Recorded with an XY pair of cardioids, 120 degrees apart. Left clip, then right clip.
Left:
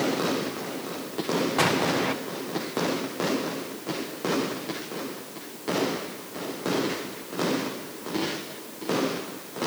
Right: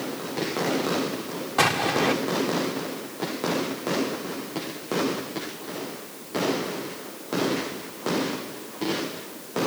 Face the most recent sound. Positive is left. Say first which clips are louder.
# right 5 dB
turn(degrees=-10)